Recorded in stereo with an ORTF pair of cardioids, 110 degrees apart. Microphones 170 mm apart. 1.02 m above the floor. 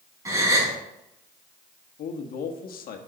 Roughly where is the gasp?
Ahead.